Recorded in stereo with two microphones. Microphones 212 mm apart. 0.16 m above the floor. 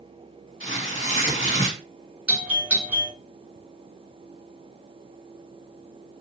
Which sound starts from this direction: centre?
A doorbell, at 2.3 s.